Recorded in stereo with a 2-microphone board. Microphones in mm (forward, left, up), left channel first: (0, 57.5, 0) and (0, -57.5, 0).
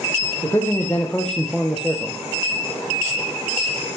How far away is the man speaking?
About 3 m.